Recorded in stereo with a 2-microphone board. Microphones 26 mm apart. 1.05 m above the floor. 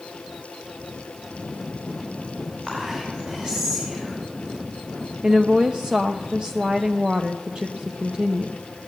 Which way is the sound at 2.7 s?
25° right (ahead or behind).